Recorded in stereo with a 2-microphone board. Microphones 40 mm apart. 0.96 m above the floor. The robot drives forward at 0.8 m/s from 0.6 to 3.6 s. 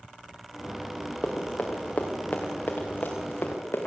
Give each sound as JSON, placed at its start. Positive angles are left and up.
{"t": 1.2, "sound": "running footsteps", "side_deg": 20, "distance_m": 4.0}